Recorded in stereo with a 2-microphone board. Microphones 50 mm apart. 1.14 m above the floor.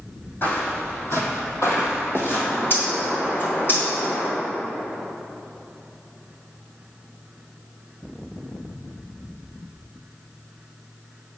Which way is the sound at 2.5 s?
50° left (ahead or behind).